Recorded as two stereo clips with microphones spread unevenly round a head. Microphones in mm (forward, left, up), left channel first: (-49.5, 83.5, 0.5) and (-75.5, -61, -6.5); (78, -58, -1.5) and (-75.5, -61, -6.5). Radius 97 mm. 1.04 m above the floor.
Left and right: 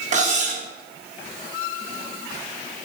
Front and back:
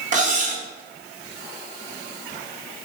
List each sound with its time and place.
0.1 s cutlery clinking: 140° right, 0.7 m